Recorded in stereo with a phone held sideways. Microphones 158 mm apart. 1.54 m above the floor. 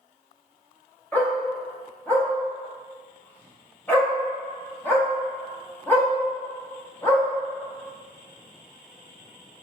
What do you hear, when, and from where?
1.1 s a dog barking: 10° left (ahead or behind), 0.9 m